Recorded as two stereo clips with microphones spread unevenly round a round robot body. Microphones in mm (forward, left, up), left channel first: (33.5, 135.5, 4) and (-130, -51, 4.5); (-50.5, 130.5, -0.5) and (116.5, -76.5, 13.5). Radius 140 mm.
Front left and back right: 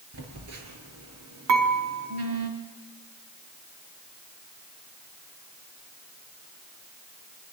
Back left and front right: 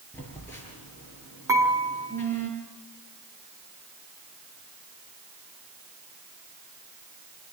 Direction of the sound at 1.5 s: 130° right.